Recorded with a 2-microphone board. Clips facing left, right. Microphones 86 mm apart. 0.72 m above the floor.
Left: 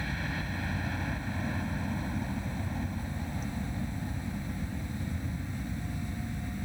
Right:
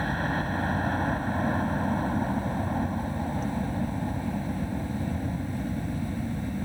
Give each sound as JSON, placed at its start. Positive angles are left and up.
{"t": 0.0, "sound": "a helicopter", "side_deg": -45}